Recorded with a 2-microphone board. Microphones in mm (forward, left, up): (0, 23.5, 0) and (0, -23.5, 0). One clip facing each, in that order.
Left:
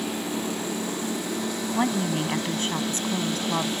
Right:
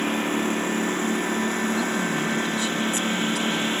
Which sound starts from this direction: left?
A woman speaking, at 1.7 s.